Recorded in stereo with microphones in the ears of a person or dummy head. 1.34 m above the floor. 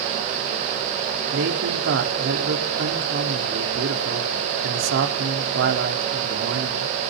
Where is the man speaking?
70° right (ahead or behind), 3.5 m.